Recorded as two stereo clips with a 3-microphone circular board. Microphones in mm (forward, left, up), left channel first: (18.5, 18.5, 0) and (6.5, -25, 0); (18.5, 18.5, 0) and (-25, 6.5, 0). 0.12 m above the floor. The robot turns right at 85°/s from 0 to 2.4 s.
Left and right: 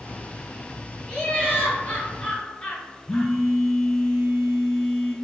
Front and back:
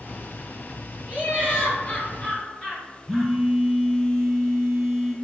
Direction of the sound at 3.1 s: 130° left.